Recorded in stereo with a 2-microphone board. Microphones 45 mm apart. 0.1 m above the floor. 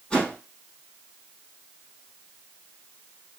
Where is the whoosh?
15° left (ahead or behind), 3 m.